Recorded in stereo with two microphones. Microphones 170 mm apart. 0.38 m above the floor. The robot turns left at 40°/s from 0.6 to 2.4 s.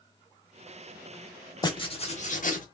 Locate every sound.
1.6 s writing: 155° left, 0.6 m; by 2.6 s 120° left, 0.6 m